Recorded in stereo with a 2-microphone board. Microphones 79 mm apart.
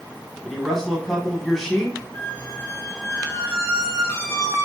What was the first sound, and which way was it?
A man speaking, centre (ahead or behind).